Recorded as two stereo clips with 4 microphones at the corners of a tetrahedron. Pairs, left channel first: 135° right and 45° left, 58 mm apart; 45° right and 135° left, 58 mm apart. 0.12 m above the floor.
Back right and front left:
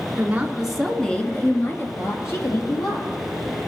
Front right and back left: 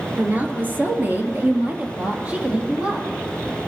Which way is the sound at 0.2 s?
85° left.